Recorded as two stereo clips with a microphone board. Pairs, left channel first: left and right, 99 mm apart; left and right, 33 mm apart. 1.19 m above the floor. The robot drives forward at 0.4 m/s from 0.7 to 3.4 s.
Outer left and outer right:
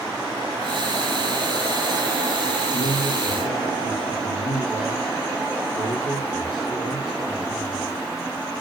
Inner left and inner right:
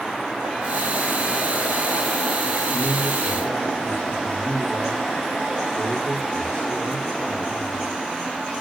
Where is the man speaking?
80° left, 8.5 m; by 7.9 s 75° left (ahead or behind), 8.5 m.